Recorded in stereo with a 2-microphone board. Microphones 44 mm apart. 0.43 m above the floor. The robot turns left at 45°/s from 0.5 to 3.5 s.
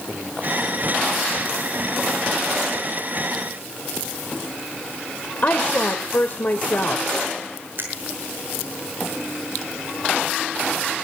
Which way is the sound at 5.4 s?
45° left (ahead or behind).